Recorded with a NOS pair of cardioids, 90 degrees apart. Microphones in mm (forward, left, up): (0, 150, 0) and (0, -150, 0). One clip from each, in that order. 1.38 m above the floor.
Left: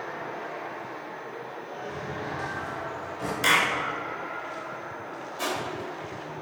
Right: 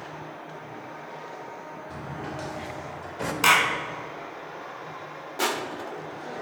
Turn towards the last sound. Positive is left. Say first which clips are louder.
# right 3 dB
turn(degrees=-55)